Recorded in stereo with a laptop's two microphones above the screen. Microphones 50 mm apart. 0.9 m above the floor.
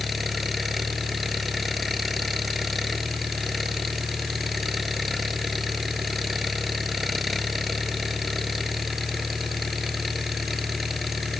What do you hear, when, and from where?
0.0 s an engine running: centre (ahead or behind)